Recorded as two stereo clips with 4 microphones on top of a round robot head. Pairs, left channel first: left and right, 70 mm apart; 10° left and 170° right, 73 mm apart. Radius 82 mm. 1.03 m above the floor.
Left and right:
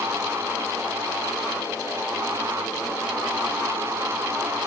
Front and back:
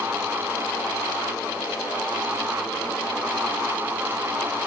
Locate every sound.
Only background noise.